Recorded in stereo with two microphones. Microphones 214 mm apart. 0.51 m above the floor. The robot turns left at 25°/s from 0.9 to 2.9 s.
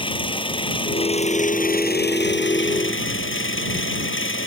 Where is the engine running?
155° left; by 4.5 s 105° left.